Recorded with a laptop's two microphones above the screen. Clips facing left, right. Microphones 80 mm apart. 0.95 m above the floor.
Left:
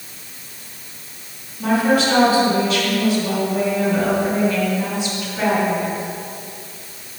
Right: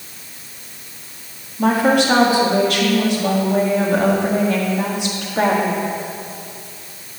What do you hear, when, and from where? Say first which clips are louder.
1.6 s a woman speaking: right 2 dB; 70° right (ahead or behind), 2 m